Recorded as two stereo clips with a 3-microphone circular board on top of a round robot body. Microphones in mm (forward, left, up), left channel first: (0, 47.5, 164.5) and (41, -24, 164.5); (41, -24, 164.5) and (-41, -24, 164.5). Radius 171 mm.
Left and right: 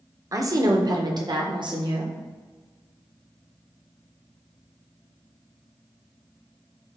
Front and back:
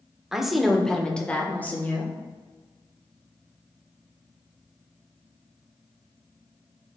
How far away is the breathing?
No breathing in this recording.